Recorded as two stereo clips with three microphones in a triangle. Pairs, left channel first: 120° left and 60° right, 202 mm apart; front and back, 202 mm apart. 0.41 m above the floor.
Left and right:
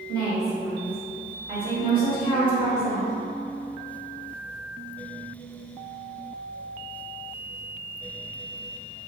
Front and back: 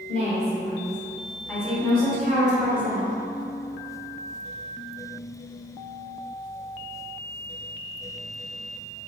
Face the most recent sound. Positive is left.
turn(degrees=-110)